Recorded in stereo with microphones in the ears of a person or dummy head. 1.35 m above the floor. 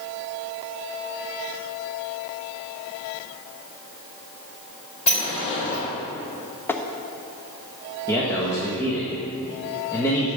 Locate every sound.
5.1 s a sliding door: 35° left (ahead or behind), 4 m
6.7 s tapping: 15° left (ahead or behind), 0.8 m
8.1 s a man speaking: 15° left (ahead or behind), 1.6 m